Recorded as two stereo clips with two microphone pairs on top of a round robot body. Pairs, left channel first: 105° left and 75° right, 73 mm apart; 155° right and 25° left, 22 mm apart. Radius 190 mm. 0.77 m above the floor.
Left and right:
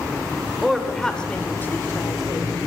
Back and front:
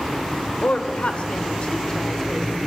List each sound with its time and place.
0.6 s a woman speaking: 165° right, 2.5 m; by 2.6 s 130° left, 1.9 m